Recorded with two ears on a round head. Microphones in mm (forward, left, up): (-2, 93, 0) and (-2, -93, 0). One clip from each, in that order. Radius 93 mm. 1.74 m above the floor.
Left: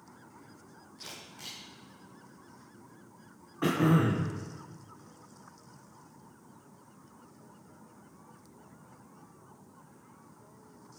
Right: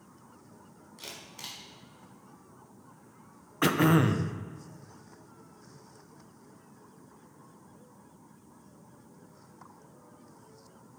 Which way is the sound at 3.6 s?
55° right (ahead or behind).